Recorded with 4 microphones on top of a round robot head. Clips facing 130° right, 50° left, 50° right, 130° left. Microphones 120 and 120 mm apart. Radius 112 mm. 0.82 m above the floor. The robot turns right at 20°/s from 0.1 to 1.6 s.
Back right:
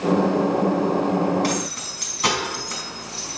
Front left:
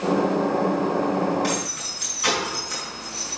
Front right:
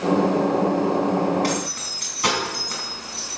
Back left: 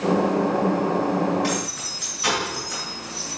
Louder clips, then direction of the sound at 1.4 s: Back right 2 dB, front right 1 dB; 95° right.